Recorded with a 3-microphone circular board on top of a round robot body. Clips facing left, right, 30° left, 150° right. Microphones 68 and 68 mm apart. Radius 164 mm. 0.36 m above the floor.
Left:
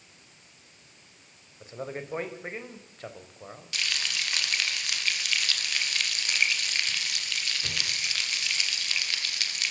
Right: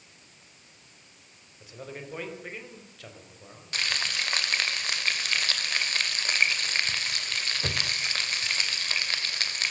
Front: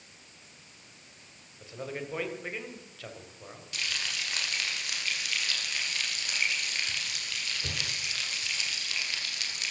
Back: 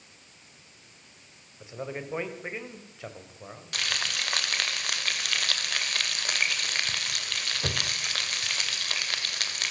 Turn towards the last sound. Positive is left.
turn(degrees=-135)